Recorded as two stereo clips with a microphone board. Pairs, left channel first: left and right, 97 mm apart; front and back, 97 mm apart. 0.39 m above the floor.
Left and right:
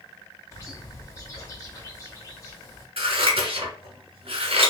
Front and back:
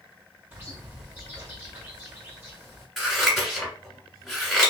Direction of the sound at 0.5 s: 130° left.